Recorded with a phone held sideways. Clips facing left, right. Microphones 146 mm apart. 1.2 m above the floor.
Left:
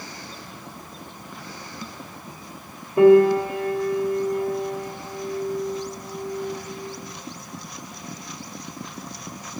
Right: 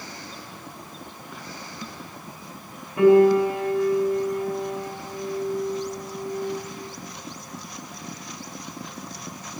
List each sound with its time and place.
3.0 s a piano: 35° left (ahead or behind), 2.5 m